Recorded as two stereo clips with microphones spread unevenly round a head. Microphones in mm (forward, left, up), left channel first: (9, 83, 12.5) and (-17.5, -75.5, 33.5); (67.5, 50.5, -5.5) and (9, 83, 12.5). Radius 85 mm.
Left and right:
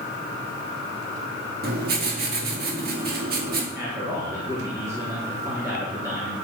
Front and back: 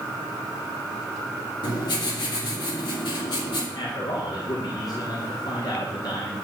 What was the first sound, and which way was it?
Writing, 65° right.